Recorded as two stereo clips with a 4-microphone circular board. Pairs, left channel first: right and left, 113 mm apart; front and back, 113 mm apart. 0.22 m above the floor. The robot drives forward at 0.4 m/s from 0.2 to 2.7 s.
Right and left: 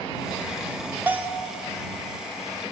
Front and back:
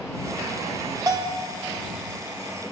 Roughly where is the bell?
Behind left.